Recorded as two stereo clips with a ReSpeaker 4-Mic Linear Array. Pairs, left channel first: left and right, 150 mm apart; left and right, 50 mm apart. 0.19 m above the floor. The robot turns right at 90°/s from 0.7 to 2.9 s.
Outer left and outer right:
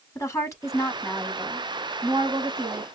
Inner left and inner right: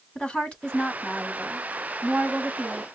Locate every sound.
0.1 s a woman speaking: 20° left (ahead or behind), 1.3 m; by 2.8 s 20° right (ahead or behind), 1.3 m